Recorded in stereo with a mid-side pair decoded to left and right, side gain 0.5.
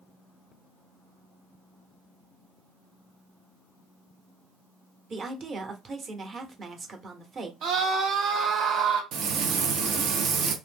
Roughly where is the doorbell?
No doorbell in this recording.